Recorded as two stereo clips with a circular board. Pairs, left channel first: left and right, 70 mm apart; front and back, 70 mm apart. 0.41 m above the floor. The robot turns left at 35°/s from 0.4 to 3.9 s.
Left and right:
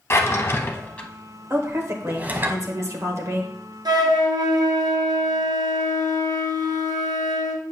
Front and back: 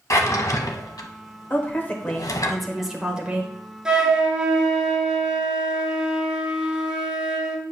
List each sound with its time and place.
0.1 s a drawer: 40° left, 0.8 m; by 2.5 s 35° right, 0.8 m
1.5 s a woman speaking: 50° right, 1.3 m; by 3.5 s 120° right, 1.3 m
3.9 s a flute: 100° right, 1.2 m; by 7.6 s 105° right, 1.2 m